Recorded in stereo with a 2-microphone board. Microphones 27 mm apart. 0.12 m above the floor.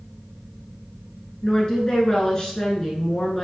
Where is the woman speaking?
30° left (ahead or behind), 1.2 m.